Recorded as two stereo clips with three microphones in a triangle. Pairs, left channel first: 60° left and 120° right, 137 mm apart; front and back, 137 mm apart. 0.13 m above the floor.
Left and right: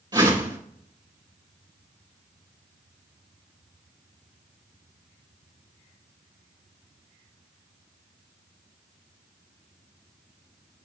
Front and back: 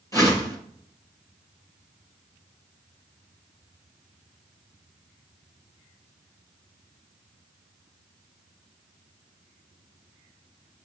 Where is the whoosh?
65° right, 3 m.